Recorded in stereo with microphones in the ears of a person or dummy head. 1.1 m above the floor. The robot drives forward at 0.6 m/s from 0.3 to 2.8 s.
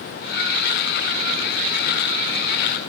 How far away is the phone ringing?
No phone ringing in this recording.